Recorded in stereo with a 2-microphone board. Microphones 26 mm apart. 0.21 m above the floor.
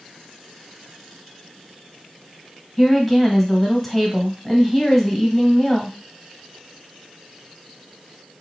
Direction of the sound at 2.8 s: 5° left (ahead or behind).